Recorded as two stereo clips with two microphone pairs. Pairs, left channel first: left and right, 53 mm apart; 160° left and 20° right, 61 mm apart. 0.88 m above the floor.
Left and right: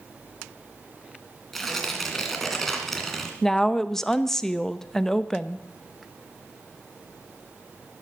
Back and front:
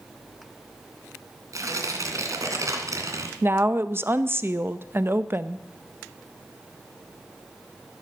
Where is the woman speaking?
15° left, 0.6 m.